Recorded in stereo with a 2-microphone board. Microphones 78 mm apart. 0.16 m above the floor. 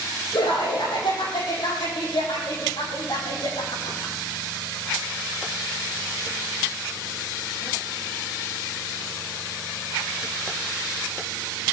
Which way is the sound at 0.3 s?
75° left (ahead or behind).